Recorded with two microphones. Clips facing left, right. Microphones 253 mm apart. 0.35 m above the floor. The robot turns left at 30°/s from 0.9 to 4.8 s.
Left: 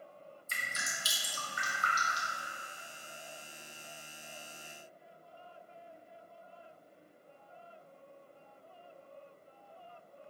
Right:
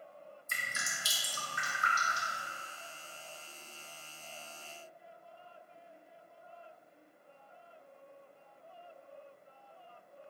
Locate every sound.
0.5 s dripping: 55° right (ahead or behind), 0.9 m; by 2.4 s 50° right (ahead or behind), 0.9 m